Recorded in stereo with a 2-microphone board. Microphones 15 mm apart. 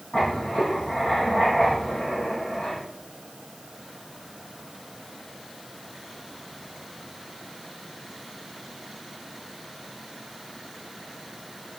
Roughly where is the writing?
Left.